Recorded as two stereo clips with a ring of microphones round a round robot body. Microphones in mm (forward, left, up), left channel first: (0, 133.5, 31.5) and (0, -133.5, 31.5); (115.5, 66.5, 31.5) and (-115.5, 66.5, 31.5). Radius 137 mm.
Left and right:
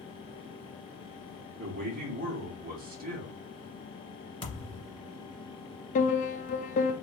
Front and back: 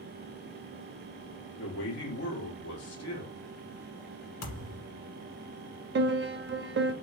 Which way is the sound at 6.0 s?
150° left.